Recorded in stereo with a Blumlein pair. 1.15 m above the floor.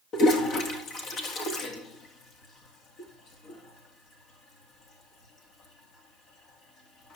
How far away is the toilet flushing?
About 2 m.